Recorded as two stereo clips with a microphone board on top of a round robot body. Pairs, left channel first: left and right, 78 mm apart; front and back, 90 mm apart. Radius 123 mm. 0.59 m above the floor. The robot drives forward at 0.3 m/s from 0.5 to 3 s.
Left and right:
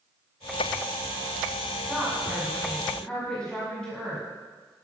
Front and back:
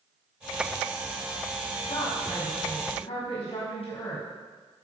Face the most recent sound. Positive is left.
turn(degrees=10)